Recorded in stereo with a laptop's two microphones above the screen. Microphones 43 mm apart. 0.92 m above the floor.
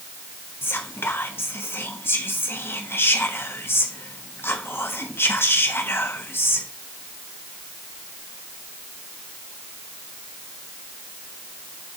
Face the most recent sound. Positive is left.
turn(degrees=65)  # may be behind; listen again after turning